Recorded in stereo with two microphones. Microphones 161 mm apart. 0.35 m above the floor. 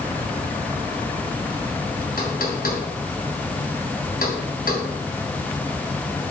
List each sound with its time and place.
2.2 s knocking: 65° left (ahead or behind), 2.5 m